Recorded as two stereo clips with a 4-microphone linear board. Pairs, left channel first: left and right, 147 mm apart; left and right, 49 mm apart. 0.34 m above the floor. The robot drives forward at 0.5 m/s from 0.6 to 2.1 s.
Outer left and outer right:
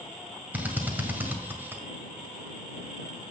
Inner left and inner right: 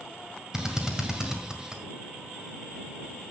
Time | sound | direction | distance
0.5 | a drill | 10° right (ahead or behind) | 2 m